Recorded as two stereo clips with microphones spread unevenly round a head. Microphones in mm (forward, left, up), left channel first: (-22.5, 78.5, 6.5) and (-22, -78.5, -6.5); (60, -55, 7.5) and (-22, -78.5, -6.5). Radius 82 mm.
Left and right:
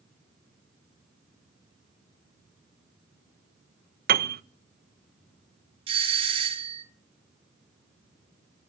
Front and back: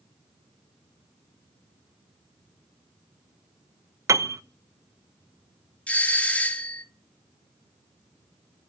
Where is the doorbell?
65° right, 1.1 m.